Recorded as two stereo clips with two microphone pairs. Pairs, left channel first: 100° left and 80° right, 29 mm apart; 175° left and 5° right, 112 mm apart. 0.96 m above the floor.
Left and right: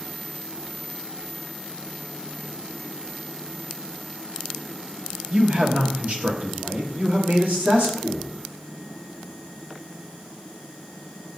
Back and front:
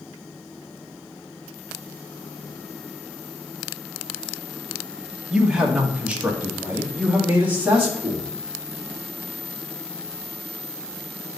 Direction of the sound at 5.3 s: 85° right.